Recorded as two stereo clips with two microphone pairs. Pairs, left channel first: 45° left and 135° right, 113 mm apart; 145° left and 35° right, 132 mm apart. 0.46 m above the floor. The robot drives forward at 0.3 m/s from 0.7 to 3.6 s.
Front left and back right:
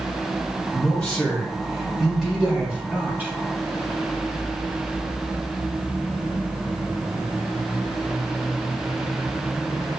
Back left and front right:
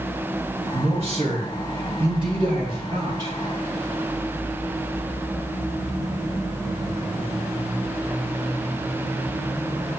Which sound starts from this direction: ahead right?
A man speaking, at 0.7 s.